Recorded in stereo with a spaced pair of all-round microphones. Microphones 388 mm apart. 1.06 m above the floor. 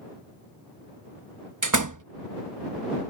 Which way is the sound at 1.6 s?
50° right (ahead or behind).